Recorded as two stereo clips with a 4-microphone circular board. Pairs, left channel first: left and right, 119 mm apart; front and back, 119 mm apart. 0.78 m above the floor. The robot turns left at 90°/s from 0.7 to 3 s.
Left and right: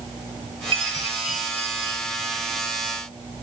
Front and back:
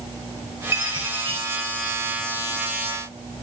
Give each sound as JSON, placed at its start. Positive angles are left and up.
{"t": 0.7, "sound": "a chime", "azimuth_deg": -120, "distance_m": 1.6}